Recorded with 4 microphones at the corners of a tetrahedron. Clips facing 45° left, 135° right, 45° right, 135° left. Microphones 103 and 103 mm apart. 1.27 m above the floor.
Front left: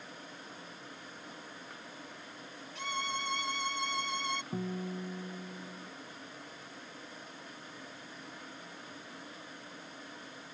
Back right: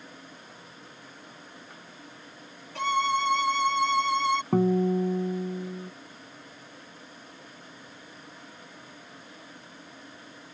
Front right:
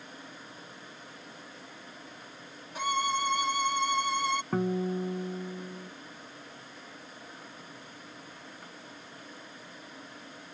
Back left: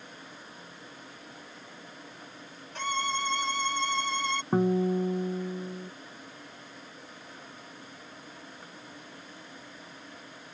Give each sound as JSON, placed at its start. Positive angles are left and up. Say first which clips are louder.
{"t": 2.8, "sound": "a violin", "louder": "back right 12 dB, front right 2 dB", "azimuth_deg": -125}
{"t": 4.5, "sound": "a guitar", "louder": "back right 15 dB, back left 9 dB", "azimuth_deg": -150}